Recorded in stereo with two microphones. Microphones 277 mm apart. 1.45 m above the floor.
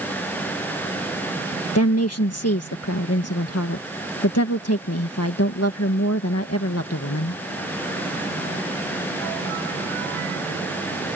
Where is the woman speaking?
60° left (ahead or behind).